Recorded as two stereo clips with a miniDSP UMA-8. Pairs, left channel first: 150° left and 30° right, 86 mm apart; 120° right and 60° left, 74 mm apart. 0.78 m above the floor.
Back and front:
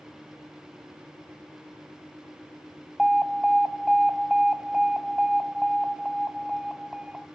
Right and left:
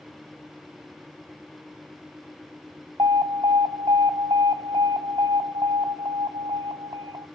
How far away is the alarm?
About 0.9 m.